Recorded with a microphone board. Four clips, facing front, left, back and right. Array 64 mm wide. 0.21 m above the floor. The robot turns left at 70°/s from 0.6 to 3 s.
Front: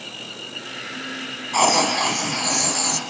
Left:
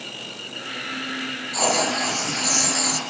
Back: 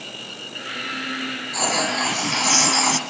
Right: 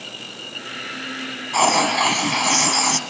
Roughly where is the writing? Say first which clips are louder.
Right 5 dB, front 5 dB; ahead right.